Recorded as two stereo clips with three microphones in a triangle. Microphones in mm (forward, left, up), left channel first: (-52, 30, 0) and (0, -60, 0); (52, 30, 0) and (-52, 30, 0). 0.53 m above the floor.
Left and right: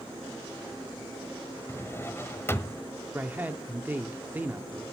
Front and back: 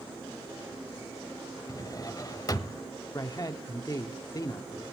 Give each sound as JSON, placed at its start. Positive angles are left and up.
{"t": 1.7, "sound": "a drawer", "azimuth_deg": 55, "distance_m": 0.9}
{"t": 3.1, "sound": "a man speaking", "azimuth_deg": 0, "distance_m": 1.2}